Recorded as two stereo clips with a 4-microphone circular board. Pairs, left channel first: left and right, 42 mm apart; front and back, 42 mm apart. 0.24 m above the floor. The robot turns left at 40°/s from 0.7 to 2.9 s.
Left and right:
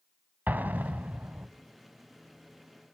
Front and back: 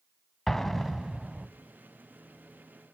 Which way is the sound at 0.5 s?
80° right.